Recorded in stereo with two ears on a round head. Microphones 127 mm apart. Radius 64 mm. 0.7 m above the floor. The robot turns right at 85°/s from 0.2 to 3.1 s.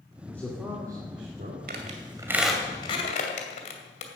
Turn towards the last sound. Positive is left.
turn(degrees=50)  # may be behind; listen again after turning